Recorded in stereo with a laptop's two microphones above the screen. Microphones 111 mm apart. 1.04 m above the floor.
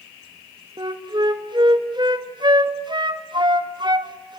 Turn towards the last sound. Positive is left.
turn(degrees=-45)  # may be behind; listen again after turning